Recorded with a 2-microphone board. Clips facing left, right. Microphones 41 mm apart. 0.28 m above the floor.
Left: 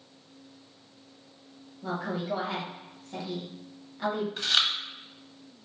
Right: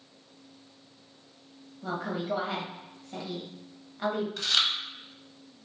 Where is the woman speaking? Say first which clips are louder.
Even; 10° right (ahead or behind), 1.1 m.